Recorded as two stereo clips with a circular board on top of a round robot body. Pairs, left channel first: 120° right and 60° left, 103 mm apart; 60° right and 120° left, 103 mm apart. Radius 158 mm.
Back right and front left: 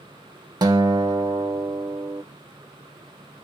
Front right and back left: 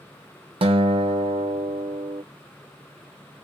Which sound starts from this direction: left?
A guitar, at 0.6 s.